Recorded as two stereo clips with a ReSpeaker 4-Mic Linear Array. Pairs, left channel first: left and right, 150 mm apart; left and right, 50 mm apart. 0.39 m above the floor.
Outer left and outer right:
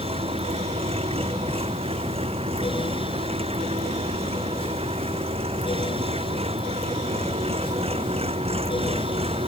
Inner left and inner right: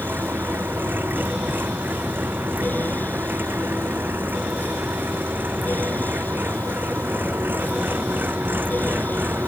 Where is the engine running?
40° right (ahead or behind).